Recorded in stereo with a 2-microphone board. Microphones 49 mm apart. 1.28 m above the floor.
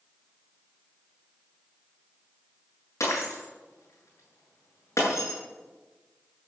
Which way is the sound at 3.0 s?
75° left (ahead or behind).